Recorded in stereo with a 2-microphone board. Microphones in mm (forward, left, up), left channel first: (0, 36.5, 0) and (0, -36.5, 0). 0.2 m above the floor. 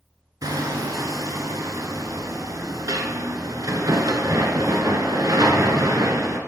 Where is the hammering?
60° right (ahead or behind), 0.9 m.